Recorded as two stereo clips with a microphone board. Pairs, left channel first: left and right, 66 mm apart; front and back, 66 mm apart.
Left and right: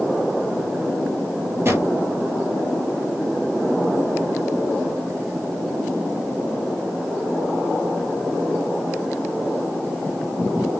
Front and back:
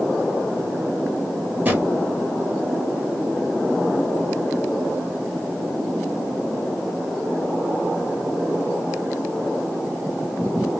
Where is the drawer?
130° right, 1.1 m.